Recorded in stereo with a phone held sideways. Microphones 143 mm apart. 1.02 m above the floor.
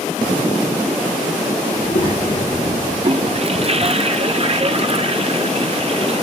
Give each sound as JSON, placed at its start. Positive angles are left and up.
{"t": 1.7, "sound": "a child speaking", "side_deg": 65, "distance_m": 9.0}
{"t": 3.0, "sound": "a toilet flushing", "side_deg": -45, "distance_m": 0.5}